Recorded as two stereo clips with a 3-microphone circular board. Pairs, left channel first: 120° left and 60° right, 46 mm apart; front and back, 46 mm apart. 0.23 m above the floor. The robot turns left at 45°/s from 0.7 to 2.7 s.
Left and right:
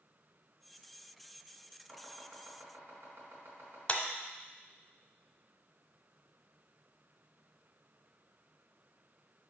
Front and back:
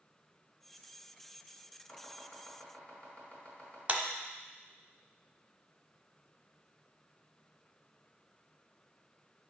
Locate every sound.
1.9 s chopping: 15° right, 2.5 m; by 3.8 s 55° right, 2.5 m
3.9 s a clap: 155° left, 0.8 m